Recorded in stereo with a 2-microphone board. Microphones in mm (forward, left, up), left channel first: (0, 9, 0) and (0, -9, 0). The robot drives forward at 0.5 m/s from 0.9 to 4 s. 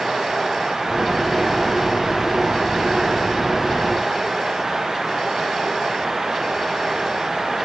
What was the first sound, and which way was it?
Only background noise.